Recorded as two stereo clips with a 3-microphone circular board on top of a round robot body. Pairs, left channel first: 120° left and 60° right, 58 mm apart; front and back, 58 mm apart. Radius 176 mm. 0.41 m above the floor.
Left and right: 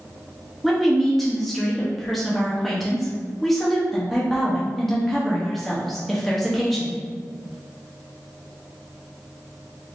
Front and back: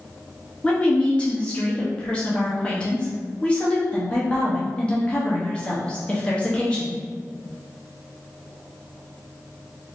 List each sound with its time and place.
0.6 s a woman speaking: 35° left, 1.1 m